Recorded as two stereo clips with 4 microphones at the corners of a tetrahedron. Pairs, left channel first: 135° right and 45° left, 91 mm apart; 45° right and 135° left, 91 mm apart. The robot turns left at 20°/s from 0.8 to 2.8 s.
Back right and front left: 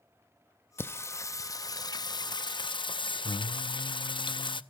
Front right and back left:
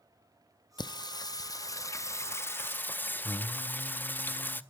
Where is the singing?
70° right, 0.5 m; by 4.6 s 110° right, 0.5 m.